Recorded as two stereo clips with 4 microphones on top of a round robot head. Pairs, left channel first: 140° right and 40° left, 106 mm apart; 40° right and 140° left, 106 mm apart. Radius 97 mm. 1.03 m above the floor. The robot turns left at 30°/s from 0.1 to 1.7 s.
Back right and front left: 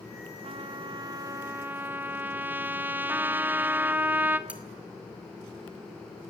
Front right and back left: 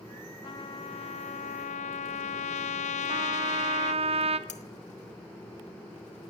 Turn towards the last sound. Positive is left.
turn(degrees=-35)